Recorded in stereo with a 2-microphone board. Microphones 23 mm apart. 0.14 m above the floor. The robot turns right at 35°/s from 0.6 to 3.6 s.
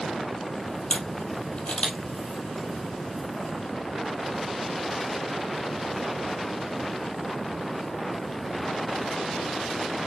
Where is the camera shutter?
70° left (ahead or behind), 3.5 m; by 2.0 s 50° left (ahead or behind), 3.5 m.